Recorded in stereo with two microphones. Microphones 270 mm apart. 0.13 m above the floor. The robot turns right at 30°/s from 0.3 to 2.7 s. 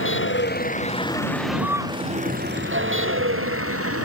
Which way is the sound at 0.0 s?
45° left (ahead or behind).